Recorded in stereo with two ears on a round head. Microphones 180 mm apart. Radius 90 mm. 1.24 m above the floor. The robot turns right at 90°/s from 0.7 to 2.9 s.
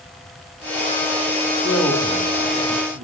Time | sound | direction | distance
1.6 | a man speaking | 150° left | 3 m